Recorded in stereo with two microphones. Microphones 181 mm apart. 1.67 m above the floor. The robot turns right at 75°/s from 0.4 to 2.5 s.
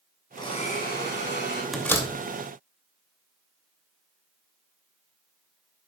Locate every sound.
0.4 s a blender: 20° left, 5 m; by 1.6 s 115° left, 5 m
1.7 s a door slam: centre (ahead or behind), 2.5 m; by 2.1 s 25° left (ahead or behind), 2.5 m